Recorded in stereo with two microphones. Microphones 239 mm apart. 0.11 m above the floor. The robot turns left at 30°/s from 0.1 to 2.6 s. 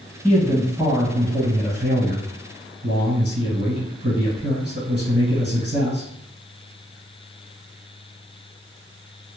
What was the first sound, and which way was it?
A man speaking, straight ahead.